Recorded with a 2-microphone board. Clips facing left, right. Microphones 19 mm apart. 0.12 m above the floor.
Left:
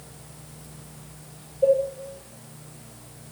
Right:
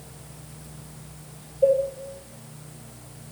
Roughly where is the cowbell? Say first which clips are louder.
Even; right.